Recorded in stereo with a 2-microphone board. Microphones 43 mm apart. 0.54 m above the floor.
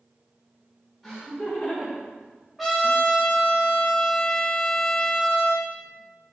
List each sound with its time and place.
1.0 s laughter: centre (ahead or behind), 2 m; by 3.0 s 15° right (ahead or behind), 3.5 m
2.6 s a trumpet: centre (ahead or behind), 2 m